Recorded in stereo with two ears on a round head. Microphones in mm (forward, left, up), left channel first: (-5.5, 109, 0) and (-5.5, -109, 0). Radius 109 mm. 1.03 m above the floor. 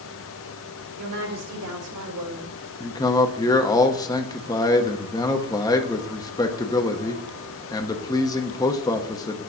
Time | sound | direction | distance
1.0 | a woman speaking | 75° right (ahead or behind) | 3 m
2.8 | a man speaking | 15° left (ahead or behind) | 0.8 m